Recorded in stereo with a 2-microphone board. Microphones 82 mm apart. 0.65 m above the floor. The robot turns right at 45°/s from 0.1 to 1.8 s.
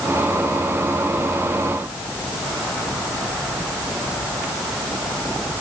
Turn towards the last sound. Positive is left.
No sound to turn to.